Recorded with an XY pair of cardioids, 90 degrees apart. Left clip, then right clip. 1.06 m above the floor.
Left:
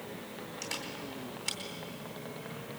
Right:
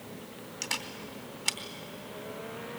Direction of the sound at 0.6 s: 60° right.